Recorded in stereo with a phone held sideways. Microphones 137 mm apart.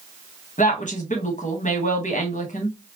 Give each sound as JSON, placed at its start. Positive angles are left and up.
{"t": 0.6, "sound": "a woman speaking", "side_deg": 65, "distance_m": 1.4}